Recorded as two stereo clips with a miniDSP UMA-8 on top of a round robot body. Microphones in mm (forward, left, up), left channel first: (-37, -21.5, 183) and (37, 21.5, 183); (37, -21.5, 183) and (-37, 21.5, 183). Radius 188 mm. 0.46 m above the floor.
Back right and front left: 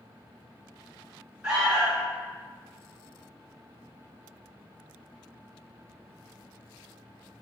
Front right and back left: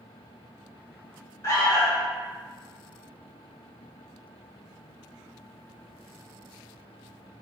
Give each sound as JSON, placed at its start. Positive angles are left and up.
{"t": 1.4, "sound": "an alarm", "azimuth_deg": -40, "distance_m": 1.7}